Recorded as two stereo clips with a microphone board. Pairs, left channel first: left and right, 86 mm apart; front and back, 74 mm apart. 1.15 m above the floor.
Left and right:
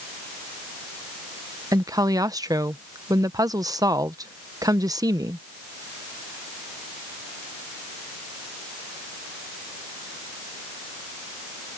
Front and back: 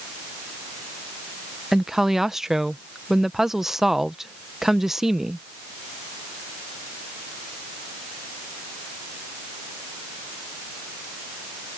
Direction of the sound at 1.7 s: 95° right.